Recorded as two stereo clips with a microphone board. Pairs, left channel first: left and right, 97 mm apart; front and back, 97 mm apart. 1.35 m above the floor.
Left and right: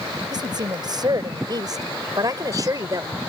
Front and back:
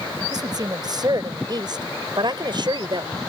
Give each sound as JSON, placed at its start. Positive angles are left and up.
{"t": 0.3, "sound": "a woman speaking", "azimuth_deg": -135}